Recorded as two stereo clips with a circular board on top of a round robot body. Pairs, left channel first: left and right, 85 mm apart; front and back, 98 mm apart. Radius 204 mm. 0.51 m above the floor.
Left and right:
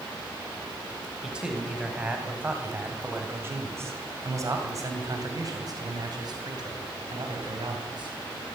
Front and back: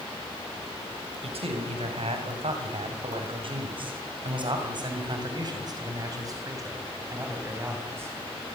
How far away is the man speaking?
About 5 m.